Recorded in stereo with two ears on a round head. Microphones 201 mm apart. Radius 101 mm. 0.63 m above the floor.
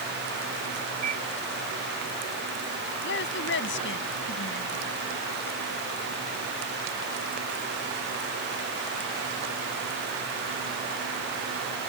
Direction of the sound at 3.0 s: 55° left (ahead or behind).